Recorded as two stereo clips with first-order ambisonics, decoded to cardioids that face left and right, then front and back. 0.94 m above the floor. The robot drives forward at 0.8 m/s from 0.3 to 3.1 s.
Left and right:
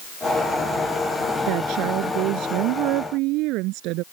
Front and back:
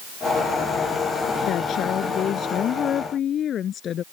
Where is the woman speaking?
55° right; by 4.0 s 60° right.